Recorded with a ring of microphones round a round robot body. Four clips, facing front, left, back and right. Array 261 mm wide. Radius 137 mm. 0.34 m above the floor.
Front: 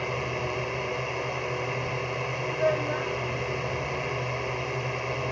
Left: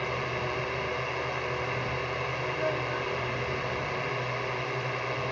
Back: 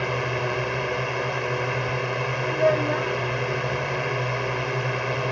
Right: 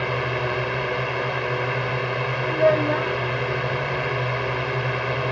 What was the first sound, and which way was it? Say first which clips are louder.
A drone: right 7 dB, back 4 dB; 120° right.